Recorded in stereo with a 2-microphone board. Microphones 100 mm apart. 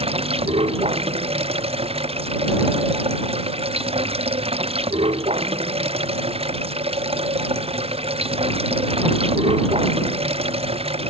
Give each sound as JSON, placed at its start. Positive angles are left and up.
{"t": 0.0, "sound": "running water", "side_deg": -80}